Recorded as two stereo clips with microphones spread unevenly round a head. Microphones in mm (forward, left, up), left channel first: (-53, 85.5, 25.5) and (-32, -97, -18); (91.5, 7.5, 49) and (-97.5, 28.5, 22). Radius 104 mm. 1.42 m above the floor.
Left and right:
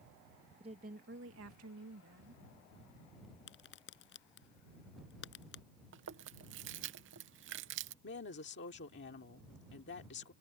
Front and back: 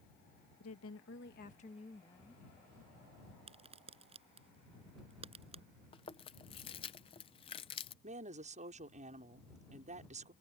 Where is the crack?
110° left.